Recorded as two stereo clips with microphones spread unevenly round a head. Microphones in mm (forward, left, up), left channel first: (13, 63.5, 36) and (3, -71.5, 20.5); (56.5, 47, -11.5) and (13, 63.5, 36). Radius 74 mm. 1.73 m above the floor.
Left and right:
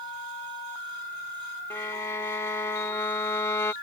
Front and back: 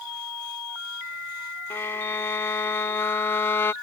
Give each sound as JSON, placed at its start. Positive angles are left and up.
{"t": 1.7, "sound": "a violin", "azimuth_deg": 105}